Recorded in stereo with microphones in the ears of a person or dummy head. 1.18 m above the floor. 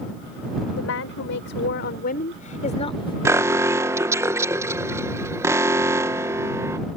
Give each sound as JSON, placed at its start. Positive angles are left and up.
{"t": 0.8, "sound": "a woman speaking", "side_deg": 70}
{"t": 3.2, "sound": "an alarm", "side_deg": -10}